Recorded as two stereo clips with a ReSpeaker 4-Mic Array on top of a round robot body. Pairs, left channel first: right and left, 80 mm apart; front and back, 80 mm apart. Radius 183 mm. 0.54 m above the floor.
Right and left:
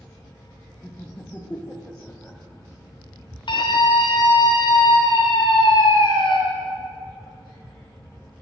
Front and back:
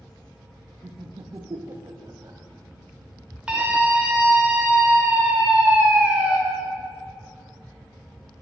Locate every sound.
0.8 s laughter: 160° right, 0.9 m
3.5 s a scream: 105° right, 2 m